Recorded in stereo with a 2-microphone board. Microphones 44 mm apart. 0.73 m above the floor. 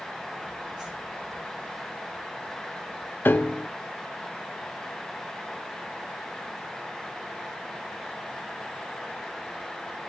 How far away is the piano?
About 0.6 m.